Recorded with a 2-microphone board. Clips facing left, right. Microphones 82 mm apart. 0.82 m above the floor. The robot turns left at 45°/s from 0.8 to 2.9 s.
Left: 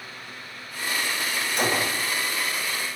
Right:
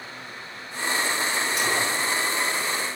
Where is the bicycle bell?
No bicycle bell in this recording.